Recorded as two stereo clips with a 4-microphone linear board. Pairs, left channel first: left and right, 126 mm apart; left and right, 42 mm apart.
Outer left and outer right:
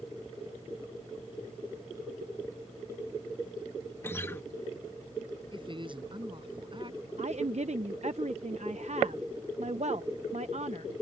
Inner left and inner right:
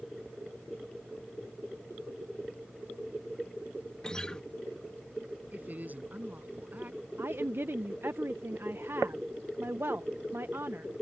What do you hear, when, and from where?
4.0 s a guitar: 20° left (ahead or behind)
5.5 s a woman speaking: 40° right (ahead or behind)
7.2 s a woman speaking: 65° right (ahead or behind)